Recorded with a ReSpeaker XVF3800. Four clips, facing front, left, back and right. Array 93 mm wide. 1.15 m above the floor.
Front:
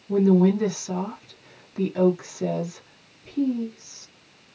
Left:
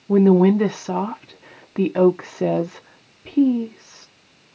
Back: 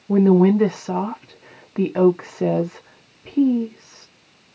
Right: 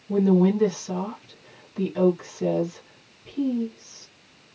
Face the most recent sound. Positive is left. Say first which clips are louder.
# left 6 dB, back 4 dB
turn(degrees=130)